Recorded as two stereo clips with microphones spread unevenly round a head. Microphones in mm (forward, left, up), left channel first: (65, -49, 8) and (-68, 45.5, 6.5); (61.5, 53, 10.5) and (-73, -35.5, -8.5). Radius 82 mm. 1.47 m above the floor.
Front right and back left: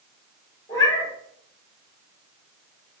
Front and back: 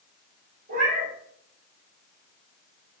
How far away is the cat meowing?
About 3 m.